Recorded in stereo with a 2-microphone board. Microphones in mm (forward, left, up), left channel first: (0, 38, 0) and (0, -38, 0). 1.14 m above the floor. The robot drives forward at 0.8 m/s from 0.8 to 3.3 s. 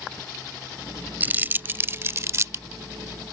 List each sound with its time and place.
1.2 s crumpling: 25° right (ahead or behind); by 2.6 s 45° right (ahead or behind)